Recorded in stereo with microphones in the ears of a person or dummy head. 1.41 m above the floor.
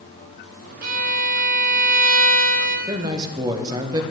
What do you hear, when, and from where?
0.8 s a violin: 50° right (ahead or behind), 1.3 m
2.9 s a man speaking: 15° right (ahead or behind), 0.9 m